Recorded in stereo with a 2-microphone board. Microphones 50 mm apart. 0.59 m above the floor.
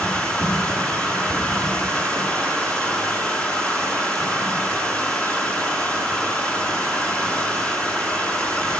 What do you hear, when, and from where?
0.0 s running water: 25° left (ahead or behind), 6 m